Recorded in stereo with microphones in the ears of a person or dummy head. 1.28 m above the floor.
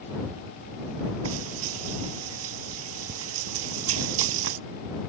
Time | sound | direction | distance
1.2 | frying | 80° right | ?